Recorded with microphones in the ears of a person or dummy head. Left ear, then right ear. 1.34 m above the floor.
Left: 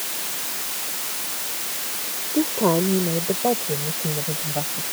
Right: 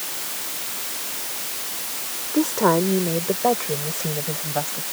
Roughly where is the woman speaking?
Right.